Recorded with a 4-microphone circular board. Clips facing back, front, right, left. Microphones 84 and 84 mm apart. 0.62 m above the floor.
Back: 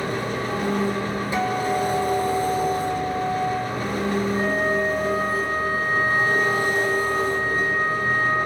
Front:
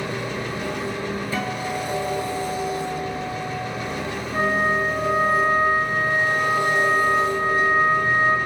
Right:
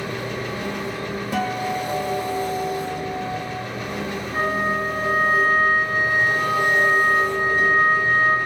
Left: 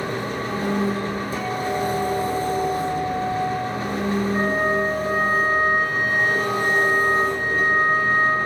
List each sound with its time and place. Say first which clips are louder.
0.0 s an engine running: back 2 dB, left 2 dB; 140° left, 1.5 m
1.3 s a guitar: back 8 dB, right 3 dB; 110° right, 1.8 m
4.3 s a flute: front 1 dB, right 2 dB; 30° right, 3.5 m